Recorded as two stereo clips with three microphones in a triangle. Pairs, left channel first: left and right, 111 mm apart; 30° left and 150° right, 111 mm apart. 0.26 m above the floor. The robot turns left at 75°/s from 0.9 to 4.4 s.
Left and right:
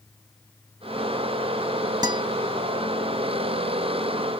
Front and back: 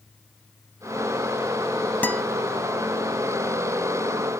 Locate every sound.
2.0 s a guitar: 45° right, 0.6 m; by 2.2 s 60° right, 0.6 m